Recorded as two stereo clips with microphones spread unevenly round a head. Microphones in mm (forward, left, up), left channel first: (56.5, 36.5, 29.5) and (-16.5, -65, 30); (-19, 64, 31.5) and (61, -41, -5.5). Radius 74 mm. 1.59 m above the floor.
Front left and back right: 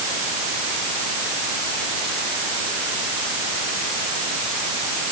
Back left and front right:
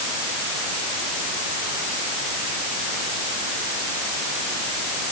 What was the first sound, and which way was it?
Only background noise.